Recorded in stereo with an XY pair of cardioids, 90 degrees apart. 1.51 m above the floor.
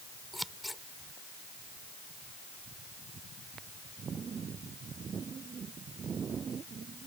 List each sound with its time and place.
0.3 s scissors: straight ahead